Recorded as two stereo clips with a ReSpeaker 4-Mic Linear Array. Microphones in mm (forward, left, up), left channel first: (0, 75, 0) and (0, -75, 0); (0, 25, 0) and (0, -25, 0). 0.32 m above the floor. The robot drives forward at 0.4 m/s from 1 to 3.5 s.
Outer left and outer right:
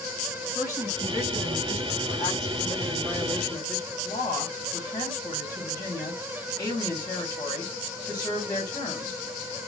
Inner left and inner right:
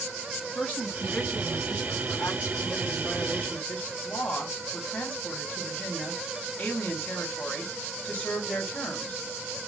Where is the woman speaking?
20° left (ahead or behind), 3 m; by 9.3 s 30° left (ahead or behind), 2.5 m.